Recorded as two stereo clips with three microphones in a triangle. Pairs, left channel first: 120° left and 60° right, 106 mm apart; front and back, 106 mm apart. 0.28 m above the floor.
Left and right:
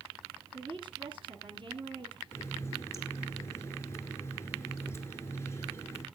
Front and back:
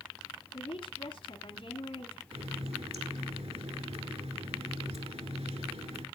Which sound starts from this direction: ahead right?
A woman speaking, at 0.5 s.